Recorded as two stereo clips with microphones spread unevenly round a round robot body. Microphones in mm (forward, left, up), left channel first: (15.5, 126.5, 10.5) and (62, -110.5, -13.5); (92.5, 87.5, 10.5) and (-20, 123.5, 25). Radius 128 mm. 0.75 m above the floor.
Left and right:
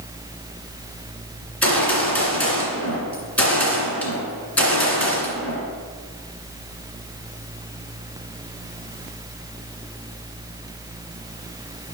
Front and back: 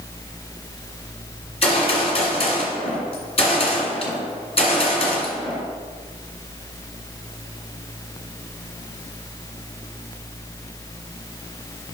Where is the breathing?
No breathing in this recording.